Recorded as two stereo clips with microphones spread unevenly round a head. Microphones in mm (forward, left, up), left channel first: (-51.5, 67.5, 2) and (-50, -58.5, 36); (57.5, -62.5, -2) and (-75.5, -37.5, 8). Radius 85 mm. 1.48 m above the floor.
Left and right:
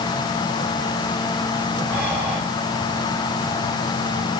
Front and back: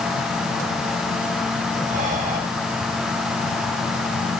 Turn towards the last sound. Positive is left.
turn(degrees=-170)